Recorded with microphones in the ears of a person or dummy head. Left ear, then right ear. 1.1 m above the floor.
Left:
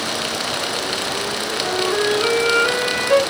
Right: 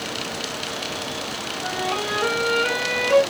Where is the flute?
5° right (ahead or behind), 1.8 m.